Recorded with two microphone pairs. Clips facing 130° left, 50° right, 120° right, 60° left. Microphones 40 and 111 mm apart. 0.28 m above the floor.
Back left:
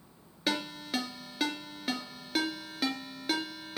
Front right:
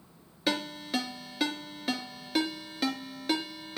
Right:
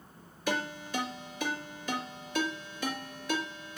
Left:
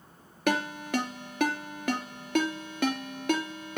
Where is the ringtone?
40° left, 2 m.